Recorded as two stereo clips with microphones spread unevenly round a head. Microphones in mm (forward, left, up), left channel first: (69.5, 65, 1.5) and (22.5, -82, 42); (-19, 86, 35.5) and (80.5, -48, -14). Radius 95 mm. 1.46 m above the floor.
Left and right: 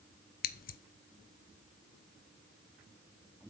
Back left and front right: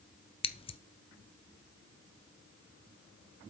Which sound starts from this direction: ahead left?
Scissors, at 0.4 s.